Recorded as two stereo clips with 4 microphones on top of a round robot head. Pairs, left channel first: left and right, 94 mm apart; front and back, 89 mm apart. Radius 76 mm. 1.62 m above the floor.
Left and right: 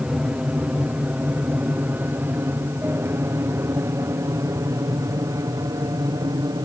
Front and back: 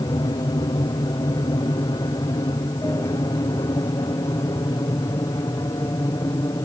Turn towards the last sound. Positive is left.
turn(degrees=-50)